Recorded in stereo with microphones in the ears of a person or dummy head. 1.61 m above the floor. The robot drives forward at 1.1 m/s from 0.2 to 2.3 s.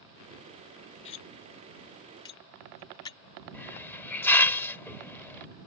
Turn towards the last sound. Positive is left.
turn(degrees=10)  # may be behind; listen again after turning